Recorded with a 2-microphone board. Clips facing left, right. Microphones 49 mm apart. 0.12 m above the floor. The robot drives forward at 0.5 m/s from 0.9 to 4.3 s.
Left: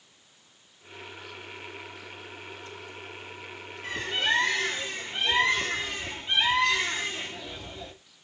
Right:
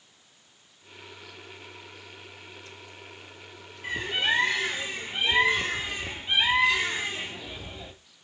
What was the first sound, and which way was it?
A bird, 15° right (ahead or behind).